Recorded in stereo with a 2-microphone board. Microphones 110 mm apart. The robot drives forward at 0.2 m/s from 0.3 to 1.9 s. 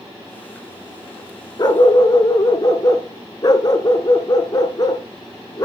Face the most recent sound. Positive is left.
turn(degrees=40)  # may be behind; listen again after turning